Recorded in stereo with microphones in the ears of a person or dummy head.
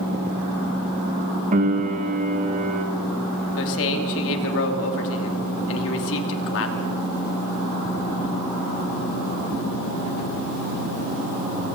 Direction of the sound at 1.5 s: 40° right (ahead or behind).